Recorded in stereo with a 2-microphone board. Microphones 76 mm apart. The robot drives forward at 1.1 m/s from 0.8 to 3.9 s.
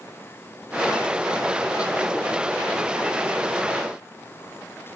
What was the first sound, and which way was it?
Only background noise.